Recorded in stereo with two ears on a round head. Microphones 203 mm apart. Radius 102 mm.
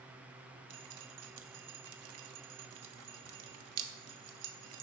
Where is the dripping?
70° right (ahead or behind), 0.7 m.